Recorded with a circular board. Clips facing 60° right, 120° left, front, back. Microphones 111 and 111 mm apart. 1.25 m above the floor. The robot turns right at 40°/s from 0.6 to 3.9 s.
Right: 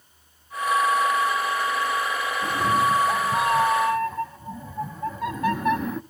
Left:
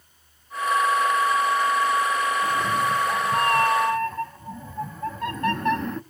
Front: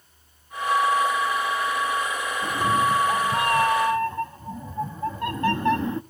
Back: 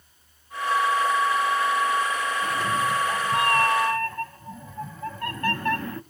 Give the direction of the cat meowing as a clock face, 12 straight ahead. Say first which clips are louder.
Right 1 dB, front 6 dB; 1 o'clock.